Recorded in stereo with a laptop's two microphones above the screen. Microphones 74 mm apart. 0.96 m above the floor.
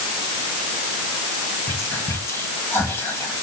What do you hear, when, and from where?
1.7 s whispering: 35° left (ahead or behind), 1.6 m